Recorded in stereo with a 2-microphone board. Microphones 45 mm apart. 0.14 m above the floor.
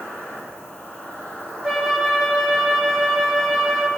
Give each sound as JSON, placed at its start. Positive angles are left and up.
{"t": 0.0, "sound": "an insect", "side_deg": 40, "distance_m": 3.5}
{"t": 1.6, "sound": "a flute", "side_deg": 0, "distance_m": 1.1}